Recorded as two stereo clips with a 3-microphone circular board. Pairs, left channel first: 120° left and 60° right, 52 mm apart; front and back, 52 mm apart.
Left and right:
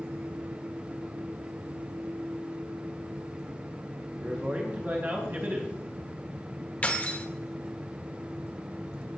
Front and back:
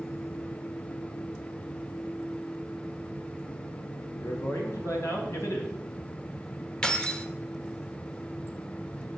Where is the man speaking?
5° right, 2.5 m.